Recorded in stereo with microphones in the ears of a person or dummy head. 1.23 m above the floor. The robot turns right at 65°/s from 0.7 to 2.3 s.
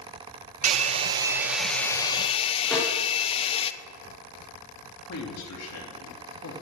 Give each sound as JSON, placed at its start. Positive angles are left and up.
{"t": 0.6, "sound": "a hair dryer", "azimuth_deg": -60, "distance_m": 0.7}
{"t": 2.7, "sound": "a snare drum", "side_deg": 5, "distance_m": 3.0}
{"t": 5.1, "sound": "a man speaking", "side_deg": 80, "distance_m": 3.0}